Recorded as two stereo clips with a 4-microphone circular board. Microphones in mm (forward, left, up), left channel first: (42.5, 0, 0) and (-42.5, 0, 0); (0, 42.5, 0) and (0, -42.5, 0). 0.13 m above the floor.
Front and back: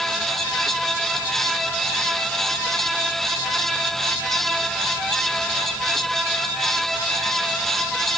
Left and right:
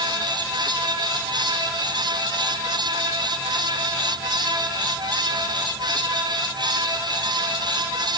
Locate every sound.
Only background noise.